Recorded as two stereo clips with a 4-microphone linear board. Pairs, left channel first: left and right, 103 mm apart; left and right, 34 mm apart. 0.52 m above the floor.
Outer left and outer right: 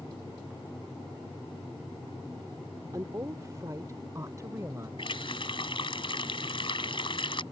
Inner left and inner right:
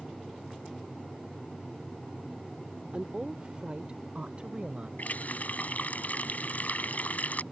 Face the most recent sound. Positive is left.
turn(degrees=55)  # may be behind; listen again after turning